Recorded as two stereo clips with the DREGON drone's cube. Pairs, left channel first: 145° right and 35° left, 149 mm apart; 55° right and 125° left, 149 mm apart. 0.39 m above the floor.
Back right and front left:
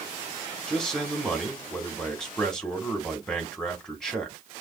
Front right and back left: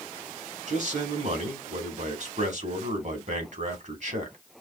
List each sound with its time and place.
0.7 s a man speaking: 130° left, 2 m